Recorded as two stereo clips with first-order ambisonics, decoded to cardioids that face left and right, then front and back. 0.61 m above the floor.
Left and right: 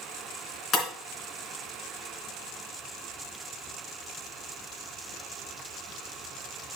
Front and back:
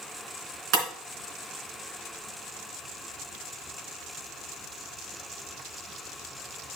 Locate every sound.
0.7 s breaking glass: 155° left, 3 m